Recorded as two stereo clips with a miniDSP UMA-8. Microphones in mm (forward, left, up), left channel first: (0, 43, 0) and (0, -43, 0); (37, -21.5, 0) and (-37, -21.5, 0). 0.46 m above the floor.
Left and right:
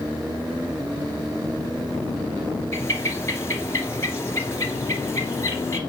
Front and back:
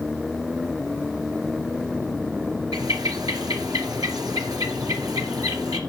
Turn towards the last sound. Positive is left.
turn(degrees=150)